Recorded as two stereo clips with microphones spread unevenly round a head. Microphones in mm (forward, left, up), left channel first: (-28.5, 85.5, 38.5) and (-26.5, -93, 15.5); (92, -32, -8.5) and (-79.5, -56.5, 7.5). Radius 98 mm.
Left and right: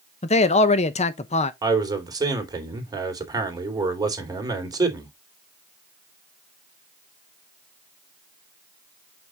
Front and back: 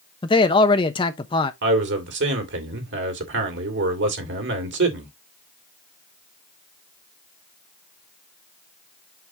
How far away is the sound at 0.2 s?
About 0.8 m.